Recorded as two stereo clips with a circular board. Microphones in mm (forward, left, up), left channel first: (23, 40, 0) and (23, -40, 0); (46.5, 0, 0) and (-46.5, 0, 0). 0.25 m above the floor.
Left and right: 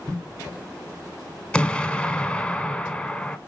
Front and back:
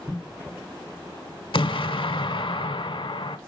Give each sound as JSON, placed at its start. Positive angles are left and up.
{"t": 1.5, "sound": "an explosion", "azimuth_deg": 15, "distance_m": 0.5}